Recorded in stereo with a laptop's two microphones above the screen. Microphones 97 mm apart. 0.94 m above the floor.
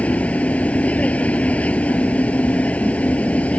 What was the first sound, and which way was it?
A machine running, 15° left (ahead or behind).